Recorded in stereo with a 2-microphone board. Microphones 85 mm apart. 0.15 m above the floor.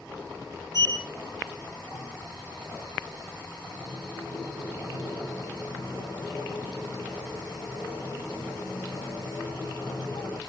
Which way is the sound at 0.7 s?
40° left (ahead or behind).